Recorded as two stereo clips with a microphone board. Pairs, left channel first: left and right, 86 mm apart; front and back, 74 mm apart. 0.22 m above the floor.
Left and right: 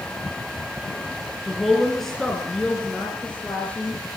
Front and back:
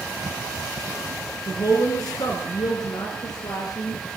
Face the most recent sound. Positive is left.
turn(degrees=20)